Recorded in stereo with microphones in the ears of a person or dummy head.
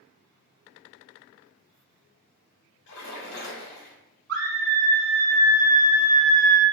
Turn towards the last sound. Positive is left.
turn(degrees=-60)  # may be behind; listen again after turning